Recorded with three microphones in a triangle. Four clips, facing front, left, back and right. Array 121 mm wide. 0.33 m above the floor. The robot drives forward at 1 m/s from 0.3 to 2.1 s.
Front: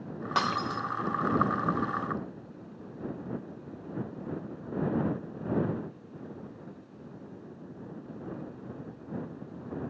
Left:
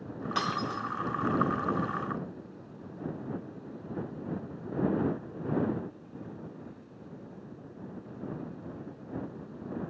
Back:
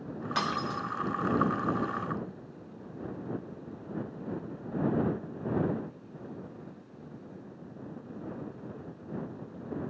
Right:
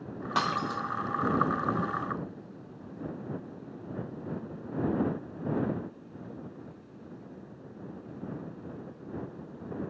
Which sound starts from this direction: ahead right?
Breaking glass, at 0.3 s.